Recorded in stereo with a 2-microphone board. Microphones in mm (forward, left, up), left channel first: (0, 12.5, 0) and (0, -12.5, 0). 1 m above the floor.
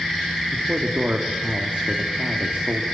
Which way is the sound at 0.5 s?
45° right (ahead or behind).